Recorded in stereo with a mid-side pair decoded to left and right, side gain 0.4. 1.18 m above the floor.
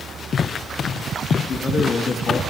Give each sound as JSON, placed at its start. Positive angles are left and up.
{"t": 1.5, "sound": "a man speaking", "azimuth_deg": 50, "distance_m": 2.5}